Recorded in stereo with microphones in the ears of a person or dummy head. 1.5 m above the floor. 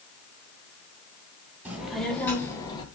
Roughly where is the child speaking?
Centre.